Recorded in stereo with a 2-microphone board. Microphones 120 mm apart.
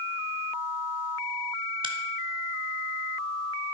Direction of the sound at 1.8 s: 45° right (ahead or behind).